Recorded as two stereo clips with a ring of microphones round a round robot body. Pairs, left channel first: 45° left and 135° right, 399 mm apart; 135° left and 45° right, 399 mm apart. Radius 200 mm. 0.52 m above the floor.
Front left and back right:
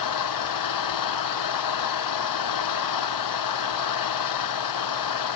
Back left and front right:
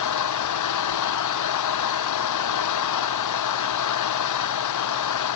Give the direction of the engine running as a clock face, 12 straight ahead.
9 o'clock.